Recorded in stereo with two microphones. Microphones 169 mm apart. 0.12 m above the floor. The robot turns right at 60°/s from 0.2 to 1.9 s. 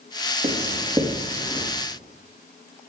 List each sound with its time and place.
0.4 s writing: 35° right (ahead or behind), 4 m; by 1.7 s 35° left (ahead or behind), 4 m